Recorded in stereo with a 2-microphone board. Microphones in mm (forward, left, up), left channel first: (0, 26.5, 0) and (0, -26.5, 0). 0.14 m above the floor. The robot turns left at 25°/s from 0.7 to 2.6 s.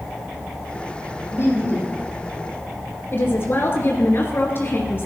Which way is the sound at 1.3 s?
50° left (ahead or behind).